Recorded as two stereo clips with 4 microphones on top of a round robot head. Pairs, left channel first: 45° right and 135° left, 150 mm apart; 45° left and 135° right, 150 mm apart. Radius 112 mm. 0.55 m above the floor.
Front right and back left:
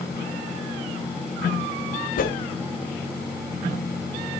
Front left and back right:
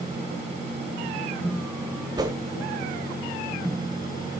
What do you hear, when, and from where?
2.2 s a whoosh: 70° right, 1.9 m